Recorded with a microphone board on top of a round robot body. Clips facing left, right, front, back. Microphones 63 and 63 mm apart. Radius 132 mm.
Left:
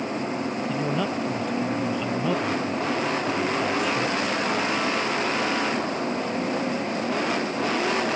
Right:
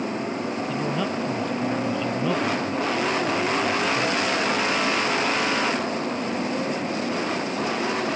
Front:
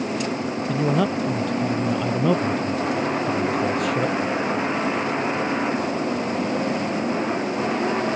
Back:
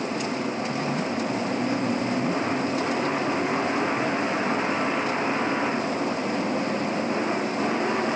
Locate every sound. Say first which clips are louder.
0.7 s a man speaking: even, front 5 dB; 5° left